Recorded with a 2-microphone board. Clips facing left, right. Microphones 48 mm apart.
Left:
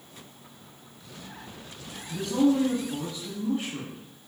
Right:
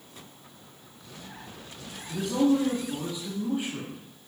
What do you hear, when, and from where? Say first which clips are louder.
2.1 s a man speaking: even; 15° right (ahead or behind), 1.1 m